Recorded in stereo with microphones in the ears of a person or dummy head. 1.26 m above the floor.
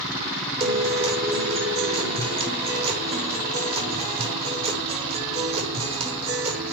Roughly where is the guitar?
Right.